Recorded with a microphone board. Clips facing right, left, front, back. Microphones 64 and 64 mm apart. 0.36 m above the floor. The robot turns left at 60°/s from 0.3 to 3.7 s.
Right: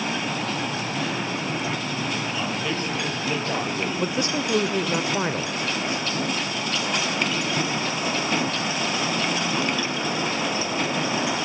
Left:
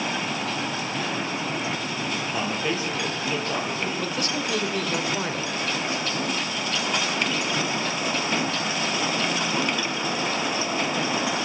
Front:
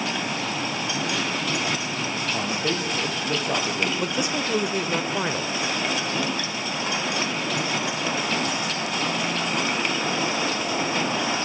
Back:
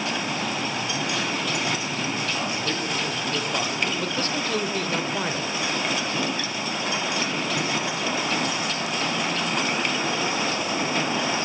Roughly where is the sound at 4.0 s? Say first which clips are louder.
Right 3 dB, front 1 dB; ahead right.